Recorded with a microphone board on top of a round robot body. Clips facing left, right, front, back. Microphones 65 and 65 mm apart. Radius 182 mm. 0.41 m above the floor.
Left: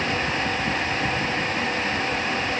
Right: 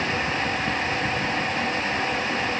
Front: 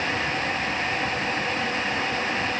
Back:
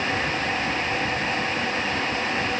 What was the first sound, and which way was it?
Only background noise.